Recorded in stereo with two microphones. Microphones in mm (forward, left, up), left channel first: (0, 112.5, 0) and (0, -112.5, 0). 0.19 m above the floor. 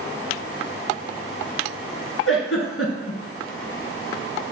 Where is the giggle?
65° left (ahead or behind), 0.9 m.